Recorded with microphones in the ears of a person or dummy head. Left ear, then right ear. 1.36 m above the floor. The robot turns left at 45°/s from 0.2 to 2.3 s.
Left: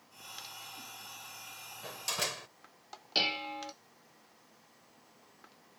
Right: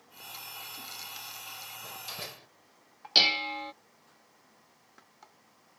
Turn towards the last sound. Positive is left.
turn(degrees=-25)  # may be behind; listen again after turning